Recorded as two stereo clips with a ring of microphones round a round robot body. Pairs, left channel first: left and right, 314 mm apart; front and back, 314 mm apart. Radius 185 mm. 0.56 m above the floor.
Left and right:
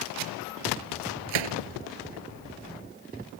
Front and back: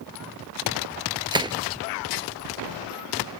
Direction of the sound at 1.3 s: 105° right.